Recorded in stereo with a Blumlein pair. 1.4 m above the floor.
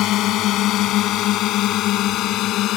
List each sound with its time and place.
0.0 s a drone: 35° left